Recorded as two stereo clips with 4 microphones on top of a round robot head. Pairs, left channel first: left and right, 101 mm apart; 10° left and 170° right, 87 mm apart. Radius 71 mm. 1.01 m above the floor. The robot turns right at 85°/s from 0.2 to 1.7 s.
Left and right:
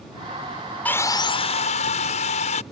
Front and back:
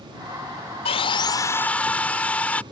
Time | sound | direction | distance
0.8 | sawing | 15° left | ?